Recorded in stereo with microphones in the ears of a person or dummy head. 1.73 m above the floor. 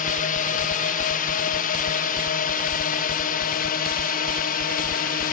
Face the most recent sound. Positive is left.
turn(degrees=50)  # may be behind; listen again after turning